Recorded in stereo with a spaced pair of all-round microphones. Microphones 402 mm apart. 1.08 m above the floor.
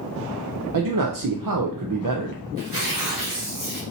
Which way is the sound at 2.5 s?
50° right (ahead or behind).